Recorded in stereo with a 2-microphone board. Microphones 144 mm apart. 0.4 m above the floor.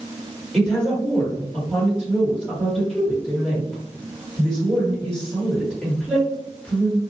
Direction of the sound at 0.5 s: 5° left (ahead or behind).